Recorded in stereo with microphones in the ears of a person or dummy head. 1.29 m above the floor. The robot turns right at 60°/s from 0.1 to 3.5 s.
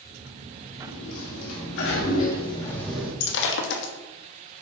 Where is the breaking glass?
55° left (ahead or behind), 1.3 m; by 3.9 s 70° left (ahead or behind), 1.3 m.